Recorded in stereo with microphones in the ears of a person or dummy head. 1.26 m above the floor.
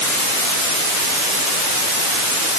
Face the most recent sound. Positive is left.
No sound to turn to.